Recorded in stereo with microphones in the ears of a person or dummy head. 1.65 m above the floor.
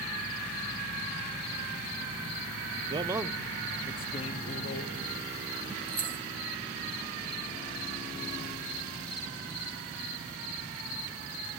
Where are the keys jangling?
20° right (ahead or behind), 0.7 m.